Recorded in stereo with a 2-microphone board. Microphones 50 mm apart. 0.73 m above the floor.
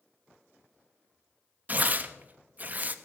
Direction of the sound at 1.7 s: 30° right (ahead or behind).